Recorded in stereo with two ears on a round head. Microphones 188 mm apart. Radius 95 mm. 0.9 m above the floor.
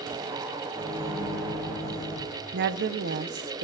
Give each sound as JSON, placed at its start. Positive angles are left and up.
{"t": 0.7, "sound": "a microwave", "side_deg": 15, "distance_m": 8.0}
{"t": 2.5, "sound": "a woman speaking", "side_deg": -55, "distance_m": 0.8}